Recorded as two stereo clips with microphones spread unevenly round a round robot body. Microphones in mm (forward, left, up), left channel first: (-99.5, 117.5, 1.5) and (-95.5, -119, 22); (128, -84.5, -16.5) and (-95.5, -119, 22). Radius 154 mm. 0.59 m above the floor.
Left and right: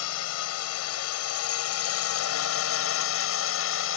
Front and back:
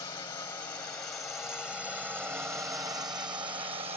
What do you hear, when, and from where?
0.0 s a drone: 85° left; by 4.0 s 115° left